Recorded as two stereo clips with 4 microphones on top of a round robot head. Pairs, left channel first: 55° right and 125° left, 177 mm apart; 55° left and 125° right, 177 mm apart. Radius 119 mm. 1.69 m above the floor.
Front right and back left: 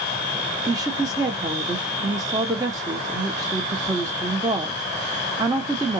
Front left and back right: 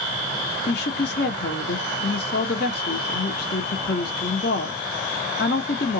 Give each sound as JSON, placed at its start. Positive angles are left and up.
{"t": 0.7, "sound": "a woman speaking", "azimuth_deg": 60, "distance_m": 0.7}